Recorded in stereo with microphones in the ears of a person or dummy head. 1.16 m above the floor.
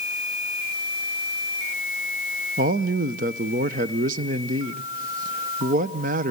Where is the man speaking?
40° right (ahead or behind), 0.7 m.